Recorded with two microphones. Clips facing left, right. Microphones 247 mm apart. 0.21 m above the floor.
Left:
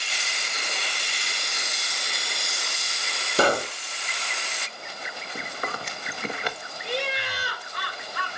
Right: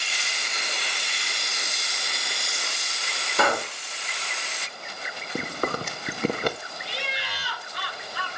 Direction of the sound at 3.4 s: 35° left (ahead or behind).